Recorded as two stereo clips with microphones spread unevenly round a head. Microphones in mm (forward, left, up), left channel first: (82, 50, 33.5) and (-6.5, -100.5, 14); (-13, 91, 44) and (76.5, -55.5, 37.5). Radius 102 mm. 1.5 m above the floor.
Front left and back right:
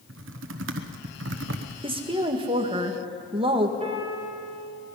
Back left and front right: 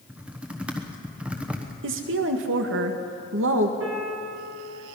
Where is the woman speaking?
60° right, 1.8 m.